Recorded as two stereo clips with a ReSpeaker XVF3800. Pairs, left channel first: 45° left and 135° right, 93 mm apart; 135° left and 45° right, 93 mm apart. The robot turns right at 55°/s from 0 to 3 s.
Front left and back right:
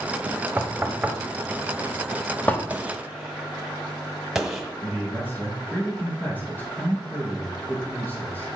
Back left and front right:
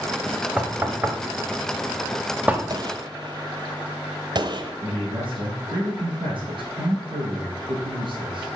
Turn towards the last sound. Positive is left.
turn(degrees=-25)